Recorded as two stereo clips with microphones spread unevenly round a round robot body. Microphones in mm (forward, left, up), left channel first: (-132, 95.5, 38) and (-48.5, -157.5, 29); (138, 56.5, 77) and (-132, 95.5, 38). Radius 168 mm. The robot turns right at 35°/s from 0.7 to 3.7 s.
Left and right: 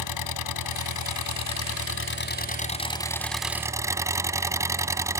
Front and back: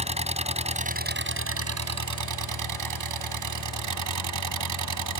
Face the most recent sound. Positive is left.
turn(degrees=-150)